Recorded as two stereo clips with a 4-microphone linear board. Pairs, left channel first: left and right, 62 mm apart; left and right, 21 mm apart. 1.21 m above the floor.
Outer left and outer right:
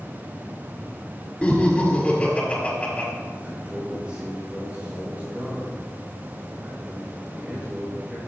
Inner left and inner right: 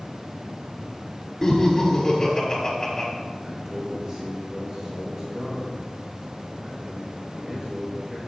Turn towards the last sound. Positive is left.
turn(degrees=-20)  # may be behind; listen again after turning